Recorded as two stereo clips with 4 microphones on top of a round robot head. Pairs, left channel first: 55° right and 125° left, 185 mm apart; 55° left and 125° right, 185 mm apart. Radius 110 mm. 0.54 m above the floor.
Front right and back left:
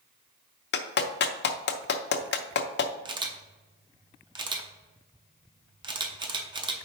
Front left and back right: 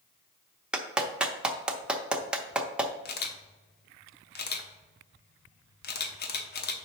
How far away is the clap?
About 0.7 m.